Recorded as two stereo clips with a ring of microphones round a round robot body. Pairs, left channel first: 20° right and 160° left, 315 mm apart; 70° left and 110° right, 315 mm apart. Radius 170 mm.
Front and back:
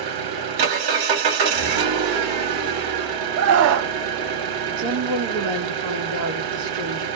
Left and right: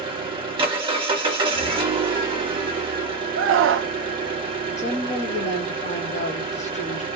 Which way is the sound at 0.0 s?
170° left.